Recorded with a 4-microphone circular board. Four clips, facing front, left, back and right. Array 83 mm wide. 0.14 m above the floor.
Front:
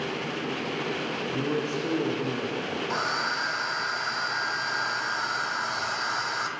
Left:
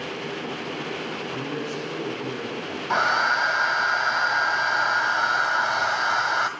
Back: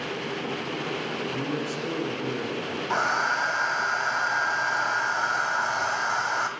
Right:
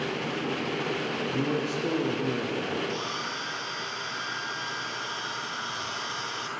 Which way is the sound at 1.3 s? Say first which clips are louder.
Right 3 dB, front 1 dB; 60° right.